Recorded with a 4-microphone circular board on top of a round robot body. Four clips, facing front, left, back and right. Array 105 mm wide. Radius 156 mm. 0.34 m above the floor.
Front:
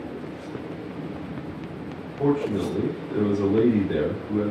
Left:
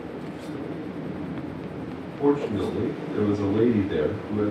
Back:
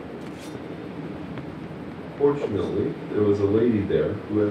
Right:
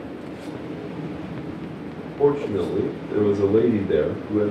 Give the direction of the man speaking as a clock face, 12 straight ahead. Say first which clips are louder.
Right 3 dB, back 2 dB; 3 o'clock.